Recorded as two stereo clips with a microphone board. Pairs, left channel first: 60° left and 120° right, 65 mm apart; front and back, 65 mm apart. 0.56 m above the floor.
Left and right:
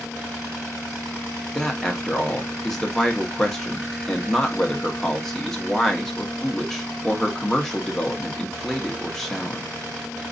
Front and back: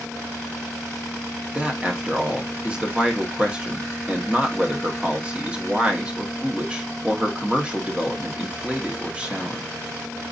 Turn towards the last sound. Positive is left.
turn(degrees=140)